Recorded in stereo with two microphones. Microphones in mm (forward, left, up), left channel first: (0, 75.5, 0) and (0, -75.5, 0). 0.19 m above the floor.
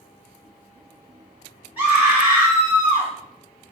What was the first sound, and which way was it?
A scream, 10° right (ahead or behind).